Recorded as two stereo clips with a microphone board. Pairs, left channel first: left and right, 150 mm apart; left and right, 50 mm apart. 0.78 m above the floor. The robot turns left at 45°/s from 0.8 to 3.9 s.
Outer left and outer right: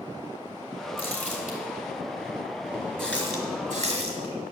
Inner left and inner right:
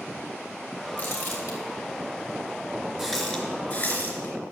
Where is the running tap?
Centre (ahead or behind), 3.5 m; by 4.3 s 45° left (ahead or behind), 3.5 m.